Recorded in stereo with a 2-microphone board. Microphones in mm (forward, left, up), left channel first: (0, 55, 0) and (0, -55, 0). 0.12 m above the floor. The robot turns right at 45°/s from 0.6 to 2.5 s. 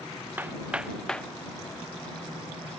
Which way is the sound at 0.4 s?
15° right (ahead or behind).